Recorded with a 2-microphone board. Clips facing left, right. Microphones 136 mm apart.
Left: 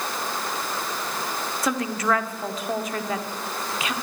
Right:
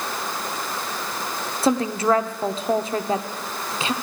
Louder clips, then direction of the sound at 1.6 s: Right 5 dB; 30° right (ahead or behind).